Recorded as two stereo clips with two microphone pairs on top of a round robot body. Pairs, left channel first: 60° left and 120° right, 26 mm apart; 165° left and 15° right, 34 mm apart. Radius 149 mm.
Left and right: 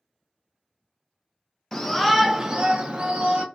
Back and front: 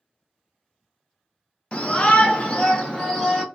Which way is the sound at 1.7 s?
115° left.